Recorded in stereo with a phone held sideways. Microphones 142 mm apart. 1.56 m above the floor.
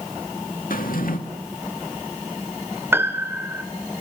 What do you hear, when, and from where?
0.7 s a drawer: 75° left (ahead or behind), 2 m
2.9 s a piano: 15° right (ahead or behind), 1.8 m